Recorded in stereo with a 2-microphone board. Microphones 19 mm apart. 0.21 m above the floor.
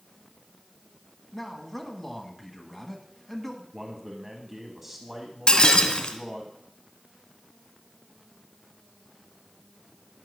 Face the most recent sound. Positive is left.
turn(degrees=50)  # may be behind; listen again after turning